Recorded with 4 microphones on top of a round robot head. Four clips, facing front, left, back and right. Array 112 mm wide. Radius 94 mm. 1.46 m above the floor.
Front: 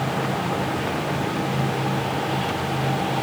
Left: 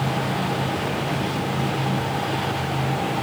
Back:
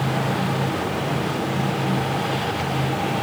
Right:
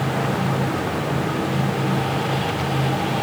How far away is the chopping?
I don't hear chopping.